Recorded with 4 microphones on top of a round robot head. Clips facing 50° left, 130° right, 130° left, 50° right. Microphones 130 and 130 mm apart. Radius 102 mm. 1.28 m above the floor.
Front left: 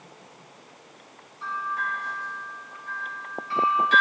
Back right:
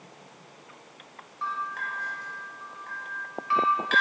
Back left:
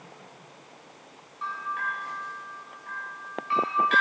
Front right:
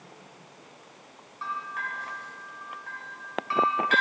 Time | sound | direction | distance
1.4 | a bell | 95° right | 1.8 m